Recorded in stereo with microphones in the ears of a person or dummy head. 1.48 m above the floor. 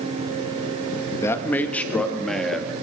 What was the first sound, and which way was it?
A man speaking, 10° left (ahead or behind).